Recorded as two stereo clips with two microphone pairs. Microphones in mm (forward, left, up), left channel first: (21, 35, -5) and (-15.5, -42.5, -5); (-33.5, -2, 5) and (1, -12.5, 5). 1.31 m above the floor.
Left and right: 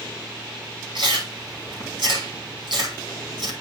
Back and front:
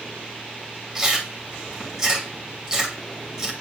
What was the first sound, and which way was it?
Chewing, 95° right.